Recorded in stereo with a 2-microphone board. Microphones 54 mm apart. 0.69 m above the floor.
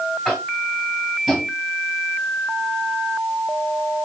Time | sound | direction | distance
0.2 | tapping | centre (ahead or behind) | 1.9 m